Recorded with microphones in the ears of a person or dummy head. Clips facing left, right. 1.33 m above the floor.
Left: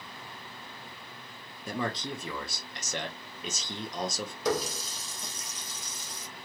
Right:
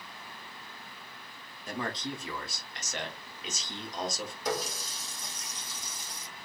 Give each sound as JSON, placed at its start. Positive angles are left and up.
{"t": 1.7, "sound": "a man speaking", "side_deg": 85, "distance_m": 1.0}
{"t": 4.5, "sound": "a running tap", "side_deg": 65, "distance_m": 1.0}